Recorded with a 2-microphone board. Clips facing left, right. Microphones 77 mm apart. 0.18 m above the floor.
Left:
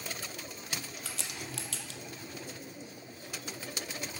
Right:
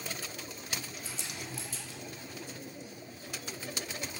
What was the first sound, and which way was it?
A crack, 85° left.